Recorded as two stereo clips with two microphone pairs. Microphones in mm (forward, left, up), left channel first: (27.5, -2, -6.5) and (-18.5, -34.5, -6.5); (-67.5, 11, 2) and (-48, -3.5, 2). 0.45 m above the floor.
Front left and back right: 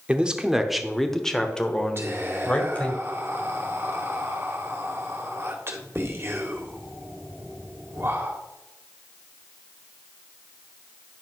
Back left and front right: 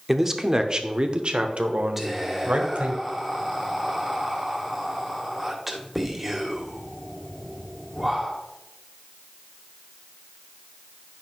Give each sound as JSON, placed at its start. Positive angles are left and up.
{"t": 0.1, "sound": "a man speaking", "azimuth_deg": -110, "distance_m": 0.8}
{"t": 2.0, "sound": "whispering", "azimuth_deg": -115, "distance_m": 1.7}